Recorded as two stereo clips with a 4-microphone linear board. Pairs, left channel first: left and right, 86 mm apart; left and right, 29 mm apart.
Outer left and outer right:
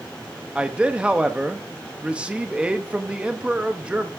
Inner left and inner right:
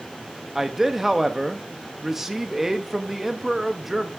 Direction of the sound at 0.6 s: 10° right (ahead or behind).